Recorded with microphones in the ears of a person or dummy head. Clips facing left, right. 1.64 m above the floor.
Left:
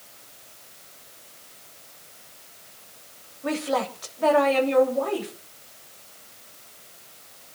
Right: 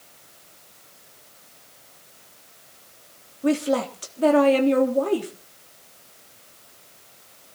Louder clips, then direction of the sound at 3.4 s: Right 5 dB; 45° right (ahead or behind).